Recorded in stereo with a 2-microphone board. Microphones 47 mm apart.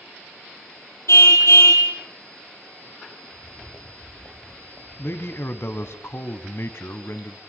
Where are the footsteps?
70° left (ahead or behind), 4.5 m; by 6.0 s 50° left (ahead or behind), 7 m.